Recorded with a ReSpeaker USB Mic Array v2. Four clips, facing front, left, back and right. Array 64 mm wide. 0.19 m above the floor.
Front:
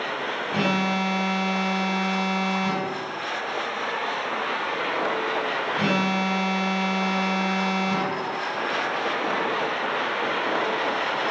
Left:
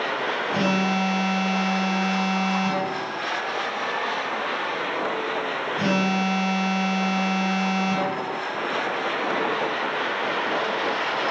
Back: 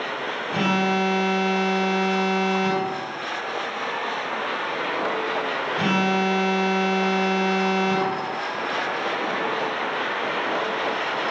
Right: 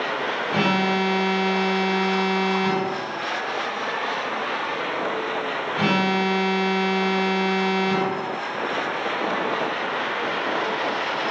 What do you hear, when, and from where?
0.5 s an alarm: 85° right, 1.8 m